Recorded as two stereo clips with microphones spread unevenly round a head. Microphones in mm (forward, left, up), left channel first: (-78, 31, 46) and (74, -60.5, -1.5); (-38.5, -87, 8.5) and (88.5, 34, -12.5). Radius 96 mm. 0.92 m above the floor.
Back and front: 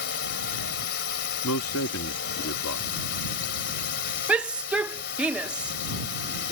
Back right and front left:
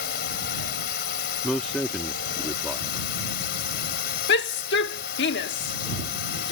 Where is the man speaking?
135° left.